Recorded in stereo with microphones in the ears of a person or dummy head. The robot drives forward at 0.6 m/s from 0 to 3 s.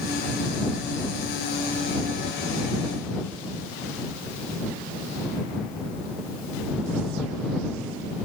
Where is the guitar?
No guitar in this recording.